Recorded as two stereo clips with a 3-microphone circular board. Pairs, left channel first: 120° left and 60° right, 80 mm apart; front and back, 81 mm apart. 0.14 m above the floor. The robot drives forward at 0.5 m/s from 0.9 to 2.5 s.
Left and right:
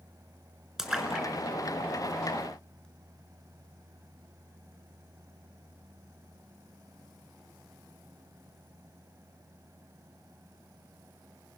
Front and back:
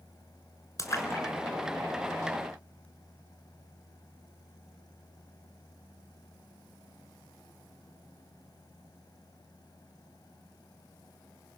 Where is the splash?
20° left, 1.7 m; by 2.9 s 55° left, 1.3 m.